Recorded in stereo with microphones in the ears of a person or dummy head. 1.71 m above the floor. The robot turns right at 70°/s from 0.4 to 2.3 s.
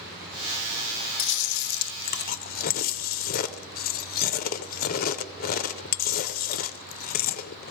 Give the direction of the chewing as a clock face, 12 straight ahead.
10 o'clock.